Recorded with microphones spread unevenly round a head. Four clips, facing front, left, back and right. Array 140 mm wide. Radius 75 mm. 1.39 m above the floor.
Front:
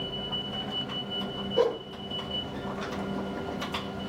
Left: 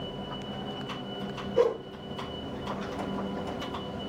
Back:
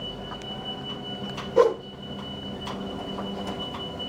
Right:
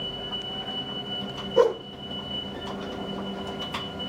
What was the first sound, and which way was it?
A whoosh, 160° right.